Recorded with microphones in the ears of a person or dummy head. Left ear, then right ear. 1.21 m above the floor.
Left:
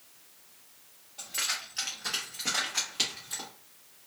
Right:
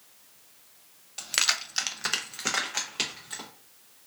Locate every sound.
1.2 s keys jangling: 60° right (ahead or behind), 0.5 m; by 3.5 s 20° right (ahead or behind), 1.1 m